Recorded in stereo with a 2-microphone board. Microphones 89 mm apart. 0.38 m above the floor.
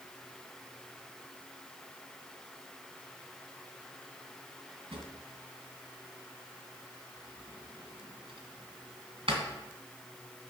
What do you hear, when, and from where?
4.9 s a drawer: 75° right (ahead or behind), 1.8 m